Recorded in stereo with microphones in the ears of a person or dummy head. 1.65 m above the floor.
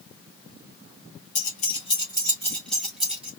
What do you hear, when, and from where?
1.4 s keys jangling: 55° left (ahead or behind), 1.0 m; by 3.3 s 5° right (ahead or behind), 1.7 m